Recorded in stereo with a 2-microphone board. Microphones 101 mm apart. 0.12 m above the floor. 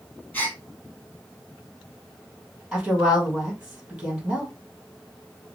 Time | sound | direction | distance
0.3 | a gasp | 20° left (ahead or behind) | 3 m
2.7 | a woman speaking | 10° right (ahead or behind) | 3 m